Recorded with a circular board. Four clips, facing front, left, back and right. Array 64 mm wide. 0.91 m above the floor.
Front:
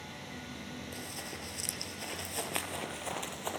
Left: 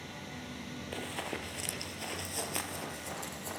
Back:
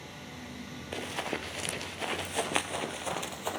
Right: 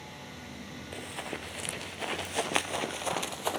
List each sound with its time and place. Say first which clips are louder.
0.9 s running footsteps: even, back 8 dB; 170° left, 1.2 m; by 3.6 s 100° right, 1.7 m